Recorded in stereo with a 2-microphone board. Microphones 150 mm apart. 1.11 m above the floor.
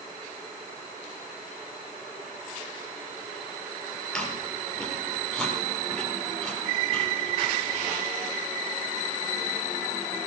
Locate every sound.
4.1 s chewing: 5° left (ahead or behind), 8 m